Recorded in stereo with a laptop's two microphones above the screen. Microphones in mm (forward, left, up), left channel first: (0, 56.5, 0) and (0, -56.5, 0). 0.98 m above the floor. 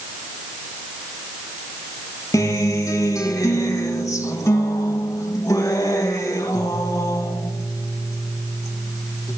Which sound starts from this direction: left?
A guitar, at 2.3 s.